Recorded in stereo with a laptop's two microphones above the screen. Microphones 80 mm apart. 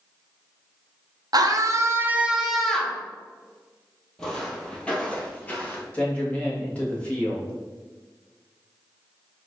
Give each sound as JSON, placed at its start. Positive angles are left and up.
{"t": 1.3, "sound": "a scream", "side_deg": -55, "distance_m": 0.9}
{"t": 4.2, "sound": "footsteps", "side_deg": 10, "distance_m": 1.9}
{"t": 5.9, "sound": "a man speaking", "side_deg": 20, "distance_m": 1.9}